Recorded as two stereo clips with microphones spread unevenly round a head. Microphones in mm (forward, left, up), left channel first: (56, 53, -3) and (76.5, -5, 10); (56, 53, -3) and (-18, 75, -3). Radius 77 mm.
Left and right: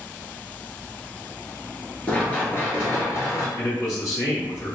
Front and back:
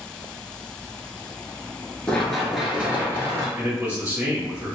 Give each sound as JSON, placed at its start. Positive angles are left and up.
{"t": 2.1, "sound": "running footsteps", "azimuth_deg": 35, "distance_m": 1.0}
{"t": 3.6, "sound": "a man speaking", "azimuth_deg": 95, "distance_m": 1.8}